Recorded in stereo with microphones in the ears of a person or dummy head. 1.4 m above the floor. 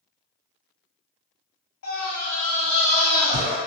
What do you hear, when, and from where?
1.8 s a scream: 85° left, 1.7 m; by 3.6 s 65° left (ahead or behind), 2 m